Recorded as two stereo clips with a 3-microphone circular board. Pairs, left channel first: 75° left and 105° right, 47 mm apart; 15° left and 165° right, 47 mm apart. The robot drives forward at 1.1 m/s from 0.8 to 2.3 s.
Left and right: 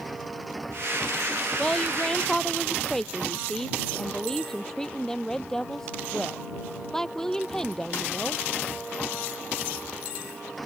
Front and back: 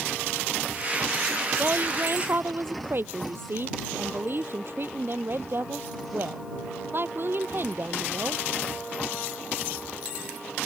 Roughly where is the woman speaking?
Behind left.